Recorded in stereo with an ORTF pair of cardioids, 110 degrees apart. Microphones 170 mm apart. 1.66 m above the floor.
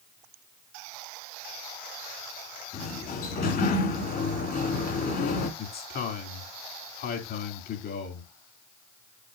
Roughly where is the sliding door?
Ahead left.